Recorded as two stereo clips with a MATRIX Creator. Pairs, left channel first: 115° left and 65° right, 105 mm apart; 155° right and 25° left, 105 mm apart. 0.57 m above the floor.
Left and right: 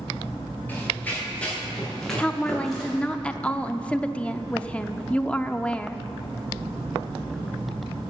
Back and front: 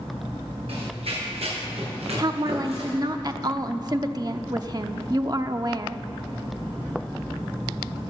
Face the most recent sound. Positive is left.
turn(degrees=40)